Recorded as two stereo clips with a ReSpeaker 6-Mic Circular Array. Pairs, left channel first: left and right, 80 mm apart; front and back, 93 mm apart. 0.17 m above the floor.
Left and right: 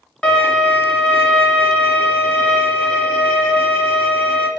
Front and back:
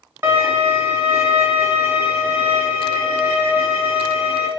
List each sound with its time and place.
0.2 s a violin: 155° left, 0.9 m